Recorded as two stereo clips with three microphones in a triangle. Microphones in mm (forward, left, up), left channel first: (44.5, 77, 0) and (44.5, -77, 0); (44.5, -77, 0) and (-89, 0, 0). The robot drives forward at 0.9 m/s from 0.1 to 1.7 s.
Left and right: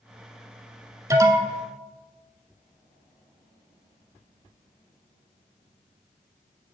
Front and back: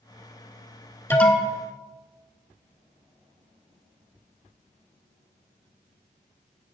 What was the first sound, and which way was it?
An alarm, 75° right.